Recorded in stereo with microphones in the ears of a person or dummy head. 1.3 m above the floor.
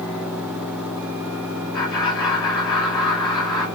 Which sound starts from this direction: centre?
Laughter, at 1.7 s.